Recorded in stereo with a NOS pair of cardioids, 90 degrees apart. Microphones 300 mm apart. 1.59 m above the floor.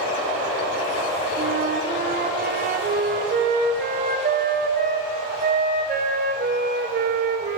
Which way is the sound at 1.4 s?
30° right.